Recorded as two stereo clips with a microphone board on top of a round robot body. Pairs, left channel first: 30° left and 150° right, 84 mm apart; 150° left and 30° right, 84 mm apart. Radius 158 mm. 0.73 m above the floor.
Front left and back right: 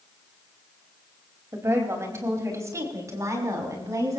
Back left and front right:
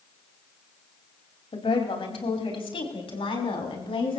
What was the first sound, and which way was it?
A woman speaking, 150° left.